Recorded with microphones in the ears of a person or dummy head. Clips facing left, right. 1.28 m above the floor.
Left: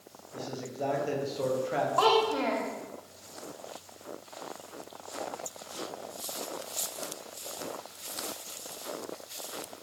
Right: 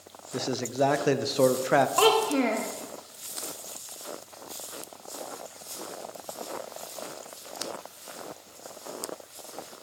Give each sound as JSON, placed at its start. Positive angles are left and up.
{"t": 0.3, "sound": "a man speaking", "side_deg": -70, "distance_m": 0.7}
{"t": 2.0, "sound": "a child speaking", "side_deg": -35, "distance_m": 0.9}